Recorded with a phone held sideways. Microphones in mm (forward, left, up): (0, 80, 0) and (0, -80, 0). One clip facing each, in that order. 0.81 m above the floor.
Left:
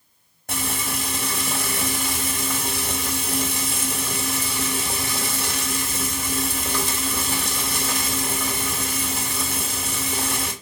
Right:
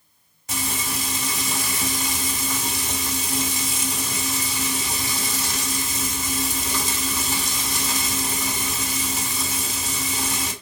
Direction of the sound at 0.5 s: 55° left (ahead or behind).